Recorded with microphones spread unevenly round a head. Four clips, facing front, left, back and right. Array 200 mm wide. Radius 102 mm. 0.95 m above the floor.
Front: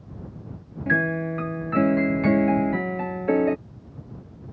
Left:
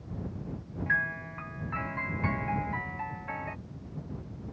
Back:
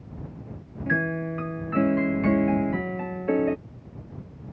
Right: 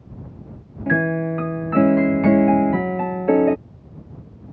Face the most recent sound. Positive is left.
turn(degrees=-80)